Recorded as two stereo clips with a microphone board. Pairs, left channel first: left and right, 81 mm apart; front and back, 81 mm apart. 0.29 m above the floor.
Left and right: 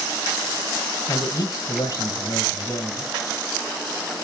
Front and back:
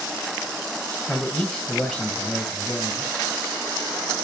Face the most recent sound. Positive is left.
turn(degrees=85)